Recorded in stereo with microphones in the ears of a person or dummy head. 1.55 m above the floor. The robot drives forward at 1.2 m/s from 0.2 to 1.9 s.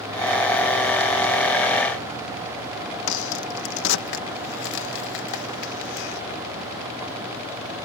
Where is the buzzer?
I don't hear a buzzer.